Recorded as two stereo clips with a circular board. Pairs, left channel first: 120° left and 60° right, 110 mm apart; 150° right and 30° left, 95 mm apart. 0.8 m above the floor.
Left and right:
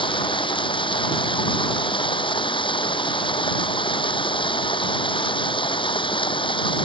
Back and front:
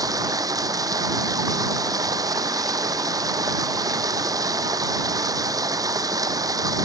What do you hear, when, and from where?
0.0 s running water: 80° left